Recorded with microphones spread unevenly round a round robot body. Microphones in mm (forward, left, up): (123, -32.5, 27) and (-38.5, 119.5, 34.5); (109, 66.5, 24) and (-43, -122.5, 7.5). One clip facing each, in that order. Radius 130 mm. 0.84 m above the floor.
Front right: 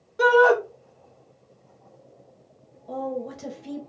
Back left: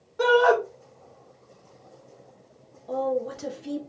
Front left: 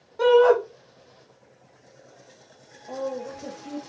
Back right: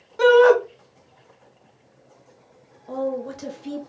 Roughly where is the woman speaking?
Behind right.